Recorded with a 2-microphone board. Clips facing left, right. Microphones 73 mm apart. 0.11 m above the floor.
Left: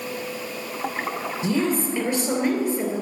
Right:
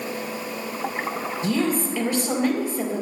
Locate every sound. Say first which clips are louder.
1.4 s a woman speaking: even; 20° left (ahead or behind), 2.5 m